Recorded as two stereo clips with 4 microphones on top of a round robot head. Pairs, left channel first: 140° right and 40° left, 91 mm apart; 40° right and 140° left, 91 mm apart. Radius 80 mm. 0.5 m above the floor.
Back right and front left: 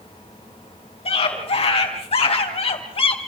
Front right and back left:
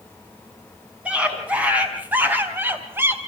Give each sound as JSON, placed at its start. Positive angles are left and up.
{"t": 1.1, "sound": "a scream", "azimuth_deg": -145, "distance_m": 5.0}